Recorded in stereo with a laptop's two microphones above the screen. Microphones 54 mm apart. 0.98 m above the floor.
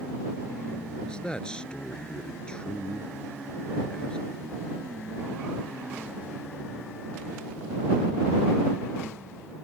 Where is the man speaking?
15° left (ahead or behind).